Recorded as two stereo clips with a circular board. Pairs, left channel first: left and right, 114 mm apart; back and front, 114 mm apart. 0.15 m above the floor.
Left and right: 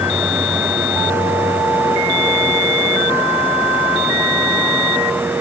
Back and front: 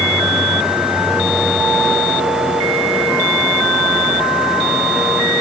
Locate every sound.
Only background noise.